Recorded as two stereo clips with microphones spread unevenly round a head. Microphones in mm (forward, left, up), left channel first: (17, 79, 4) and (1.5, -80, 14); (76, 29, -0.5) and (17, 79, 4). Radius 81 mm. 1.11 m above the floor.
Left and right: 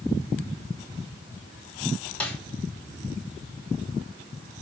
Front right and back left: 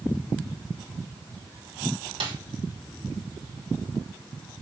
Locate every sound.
2.2 s a snare drum: 165° left, 2.5 m